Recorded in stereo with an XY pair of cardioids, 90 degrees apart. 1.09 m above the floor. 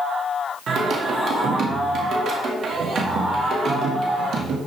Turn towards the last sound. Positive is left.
turn(degrees=-65)